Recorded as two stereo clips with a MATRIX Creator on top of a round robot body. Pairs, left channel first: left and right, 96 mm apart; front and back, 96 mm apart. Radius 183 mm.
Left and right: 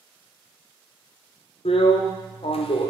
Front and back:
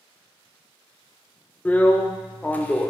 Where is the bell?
I don't hear a bell.